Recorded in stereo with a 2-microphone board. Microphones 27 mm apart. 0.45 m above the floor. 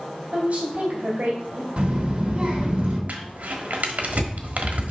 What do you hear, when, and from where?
0.3 s a woman speaking: 60° right (ahead or behind), 2 m
1.8 s a child speaking: 45° right (ahead or behind), 3 m
3.1 s crumpling: 70° right (ahead or behind), 1.3 m